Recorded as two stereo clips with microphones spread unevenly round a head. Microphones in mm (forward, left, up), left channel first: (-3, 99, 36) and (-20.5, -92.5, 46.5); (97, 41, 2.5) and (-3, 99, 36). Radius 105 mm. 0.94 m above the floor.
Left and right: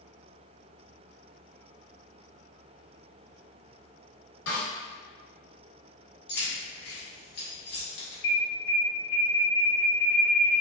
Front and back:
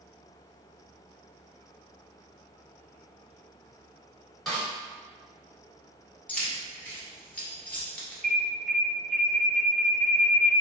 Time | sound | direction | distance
4.5 | a snare drum | 55° left | 1.8 m
6.3 | keys jangling | 50° left | 1.3 m
8.2 | an alarm | 55° left | 1.1 m